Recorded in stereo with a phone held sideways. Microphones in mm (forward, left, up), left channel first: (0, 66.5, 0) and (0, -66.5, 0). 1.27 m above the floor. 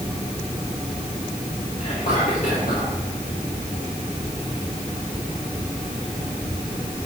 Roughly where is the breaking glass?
I don't hear breaking glass.